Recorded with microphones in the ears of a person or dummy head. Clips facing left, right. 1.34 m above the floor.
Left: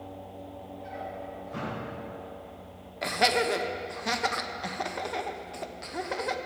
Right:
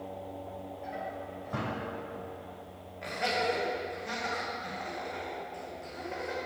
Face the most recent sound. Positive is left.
turn(degrees=80)